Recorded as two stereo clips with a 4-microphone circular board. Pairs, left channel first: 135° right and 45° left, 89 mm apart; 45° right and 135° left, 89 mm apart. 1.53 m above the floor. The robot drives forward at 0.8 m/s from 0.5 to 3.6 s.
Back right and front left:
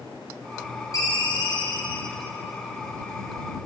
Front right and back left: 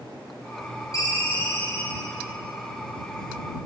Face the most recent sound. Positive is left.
turn(degrees=-130)